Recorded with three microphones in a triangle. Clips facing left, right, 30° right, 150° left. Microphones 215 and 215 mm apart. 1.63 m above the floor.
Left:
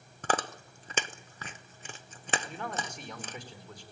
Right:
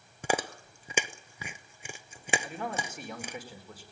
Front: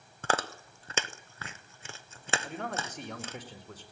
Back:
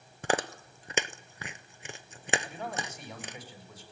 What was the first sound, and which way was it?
Chewing, 155° right.